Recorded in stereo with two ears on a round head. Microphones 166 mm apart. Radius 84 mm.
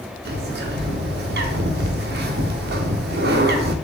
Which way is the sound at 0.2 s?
65° right (ahead or behind).